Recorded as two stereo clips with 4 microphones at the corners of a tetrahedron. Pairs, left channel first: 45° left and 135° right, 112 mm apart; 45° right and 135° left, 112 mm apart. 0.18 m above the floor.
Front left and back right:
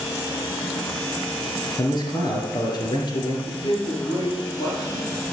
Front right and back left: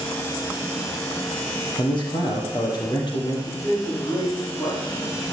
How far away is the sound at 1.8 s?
About 3.5 m.